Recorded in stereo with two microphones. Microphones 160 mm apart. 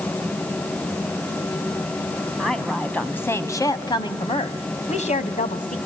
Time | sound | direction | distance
2.4 | a woman speaking | centre (ahead or behind) | 2.5 m